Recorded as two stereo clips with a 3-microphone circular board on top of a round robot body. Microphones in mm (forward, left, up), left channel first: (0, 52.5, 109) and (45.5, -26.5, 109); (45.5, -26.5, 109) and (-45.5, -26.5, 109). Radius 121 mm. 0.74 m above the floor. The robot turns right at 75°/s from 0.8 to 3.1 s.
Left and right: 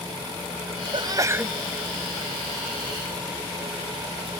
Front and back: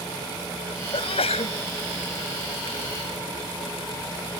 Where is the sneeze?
25° right; by 1.6 s 20° left.